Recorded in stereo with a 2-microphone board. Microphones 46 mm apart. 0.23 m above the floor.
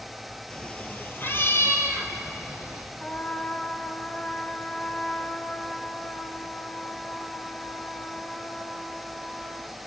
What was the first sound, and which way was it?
A cat meowing, 15° left (ahead or behind).